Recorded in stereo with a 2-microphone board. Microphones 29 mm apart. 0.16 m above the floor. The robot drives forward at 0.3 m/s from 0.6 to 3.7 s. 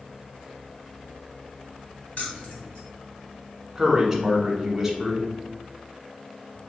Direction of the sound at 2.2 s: 65° left (ahead or behind).